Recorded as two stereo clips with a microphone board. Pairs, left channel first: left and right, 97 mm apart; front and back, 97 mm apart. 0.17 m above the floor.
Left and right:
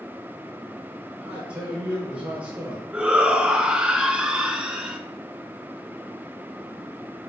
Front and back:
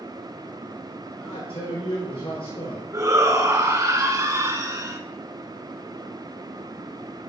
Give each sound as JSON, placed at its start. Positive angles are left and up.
{"t": 1.2, "sound": "a man speaking", "azimuth_deg": -15, "distance_m": 3.5}
{"t": 2.9, "sound": "a shout", "azimuth_deg": -165, "distance_m": 1.8}